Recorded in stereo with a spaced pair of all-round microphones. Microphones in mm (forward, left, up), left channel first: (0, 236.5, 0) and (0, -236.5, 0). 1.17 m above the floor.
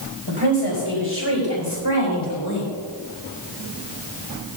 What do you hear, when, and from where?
0.3 s a woman speaking: 65° left (ahead or behind), 4.5 m; by 2.7 s 50° left (ahead or behind), 3 m